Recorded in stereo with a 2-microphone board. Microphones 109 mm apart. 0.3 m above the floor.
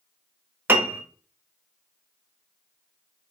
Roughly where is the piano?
Centre.